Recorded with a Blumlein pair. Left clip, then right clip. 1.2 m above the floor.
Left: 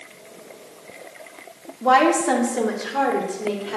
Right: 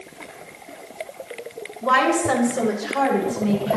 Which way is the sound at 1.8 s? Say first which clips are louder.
Left 2 dB; 30° left.